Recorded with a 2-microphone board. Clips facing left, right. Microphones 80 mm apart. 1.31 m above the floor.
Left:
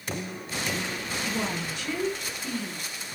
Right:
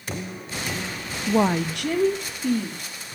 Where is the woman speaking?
65° right (ahead or behind), 0.5 m; by 2.8 s 55° right (ahead or behind), 3 m.